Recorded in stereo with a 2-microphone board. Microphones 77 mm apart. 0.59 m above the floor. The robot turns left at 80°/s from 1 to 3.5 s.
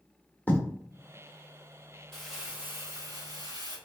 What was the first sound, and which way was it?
Writing, 20° left (ahead or behind).